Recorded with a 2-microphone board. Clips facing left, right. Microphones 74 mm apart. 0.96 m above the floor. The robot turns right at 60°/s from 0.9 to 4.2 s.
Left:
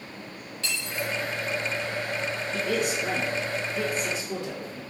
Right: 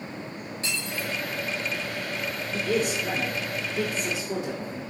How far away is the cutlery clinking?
About 1.8 m.